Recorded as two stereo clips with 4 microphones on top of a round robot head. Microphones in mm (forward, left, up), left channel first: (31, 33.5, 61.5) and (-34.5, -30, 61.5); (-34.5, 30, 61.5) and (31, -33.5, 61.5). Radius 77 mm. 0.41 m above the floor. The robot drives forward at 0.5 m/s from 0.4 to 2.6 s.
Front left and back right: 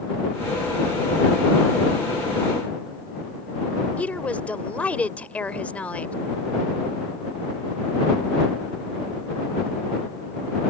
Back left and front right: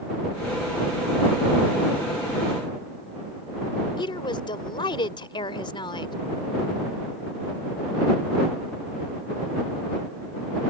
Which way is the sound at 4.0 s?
115° left.